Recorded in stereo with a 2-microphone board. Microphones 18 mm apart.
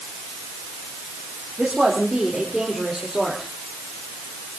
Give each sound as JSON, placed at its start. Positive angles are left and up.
{"t": 1.6, "sound": "a woman speaking", "side_deg": -25, "distance_m": 3.5}